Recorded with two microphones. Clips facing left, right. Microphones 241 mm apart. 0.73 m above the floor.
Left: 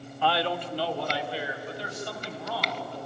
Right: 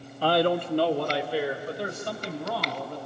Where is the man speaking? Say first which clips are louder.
Right 6 dB; 40° right (ahead or behind), 0.6 m; by 3.0 s 60° right (ahead or behind), 4.5 m.